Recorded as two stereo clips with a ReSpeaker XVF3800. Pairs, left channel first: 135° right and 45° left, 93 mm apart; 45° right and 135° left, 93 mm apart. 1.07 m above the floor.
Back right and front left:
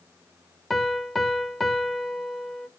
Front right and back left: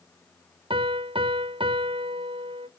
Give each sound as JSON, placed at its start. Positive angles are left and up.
{"t": 0.7, "sound": "a piano", "azimuth_deg": 135, "distance_m": 0.6}